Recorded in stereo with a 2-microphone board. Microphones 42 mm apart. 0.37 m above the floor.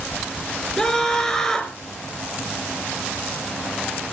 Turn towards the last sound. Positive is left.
turn(degrees=10)  # may be behind; listen again after turning